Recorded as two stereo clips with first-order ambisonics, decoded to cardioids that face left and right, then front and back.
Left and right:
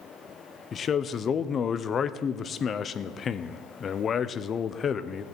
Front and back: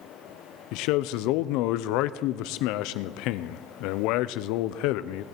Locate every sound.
0.7 s a man speaking: 25° left, 0.6 m